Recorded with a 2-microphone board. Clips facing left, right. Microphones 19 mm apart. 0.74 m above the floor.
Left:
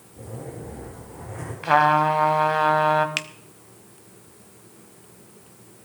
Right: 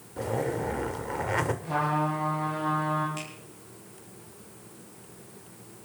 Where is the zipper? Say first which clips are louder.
Right 8 dB; 80° right, 1.7 m.